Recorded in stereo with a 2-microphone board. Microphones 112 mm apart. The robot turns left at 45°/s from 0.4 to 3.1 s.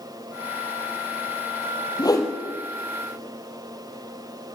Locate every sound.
2.0 s a whoosh: 40° left (ahead or behind), 3.5 m; by 2.3 s 25° left (ahead or behind), 3.5 m